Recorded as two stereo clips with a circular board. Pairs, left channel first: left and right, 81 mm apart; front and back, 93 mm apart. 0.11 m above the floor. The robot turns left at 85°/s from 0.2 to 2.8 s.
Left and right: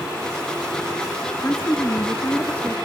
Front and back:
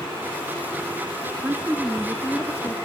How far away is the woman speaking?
About 1.3 m.